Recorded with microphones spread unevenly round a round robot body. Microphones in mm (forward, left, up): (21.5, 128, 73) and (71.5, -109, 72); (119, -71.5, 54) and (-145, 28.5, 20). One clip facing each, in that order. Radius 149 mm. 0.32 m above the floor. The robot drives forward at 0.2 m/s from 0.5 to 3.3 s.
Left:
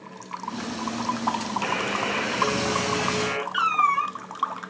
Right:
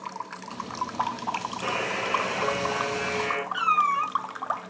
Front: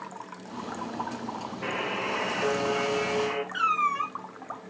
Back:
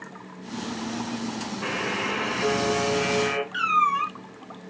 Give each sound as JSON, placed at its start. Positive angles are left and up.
{"t": 1.6, "sound": "a buzzer", "azimuth_deg": 155, "distance_m": 1.3}
{"t": 3.5, "sound": "a cat meowing", "azimuth_deg": 125, "distance_m": 1.4}